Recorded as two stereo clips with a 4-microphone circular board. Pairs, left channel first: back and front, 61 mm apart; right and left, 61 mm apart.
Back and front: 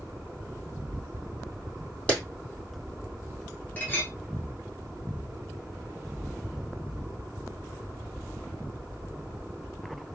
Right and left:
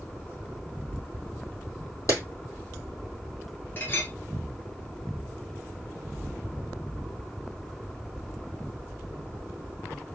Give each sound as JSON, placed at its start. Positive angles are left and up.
{"t": 2.1, "sound": "a clap", "azimuth_deg": -115, "distance_m": 2.5}
{"t": 3.8, "sound": "a clink", "azimuth_deg": -130, "distance_m": 1.4}